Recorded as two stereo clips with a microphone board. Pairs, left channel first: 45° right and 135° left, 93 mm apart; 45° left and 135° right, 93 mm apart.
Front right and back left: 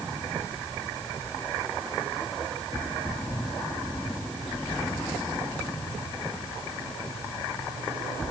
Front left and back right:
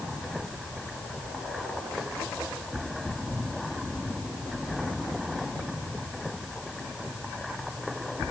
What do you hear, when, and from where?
Only background noise.